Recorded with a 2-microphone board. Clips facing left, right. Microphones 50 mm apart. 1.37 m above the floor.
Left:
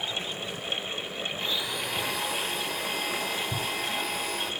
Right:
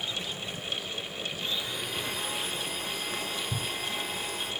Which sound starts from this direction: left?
A blender, at 1.4 s.